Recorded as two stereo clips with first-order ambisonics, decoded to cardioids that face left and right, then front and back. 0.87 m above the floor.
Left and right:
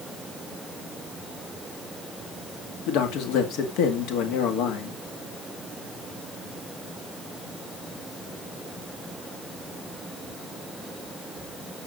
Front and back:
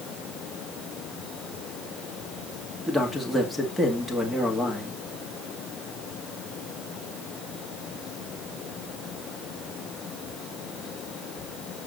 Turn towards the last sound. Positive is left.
turn(degrees=90)